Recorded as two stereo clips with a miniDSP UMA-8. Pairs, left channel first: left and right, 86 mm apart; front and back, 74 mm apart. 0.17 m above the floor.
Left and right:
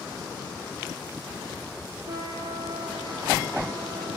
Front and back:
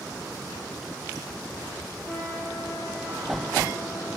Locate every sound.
2.0 s a trumpet: 55° right, 2.5 m